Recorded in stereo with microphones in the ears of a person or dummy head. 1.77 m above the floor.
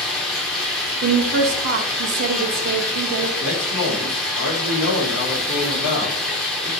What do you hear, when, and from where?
0.0 s running water: 10° left (ahead or behind), 0.9 m
1.0 s a woman speaking: 50° right (ahead or behind), 0.5 m
3.4 s a man speaking: 70° left (ahead or behind), 1.3 m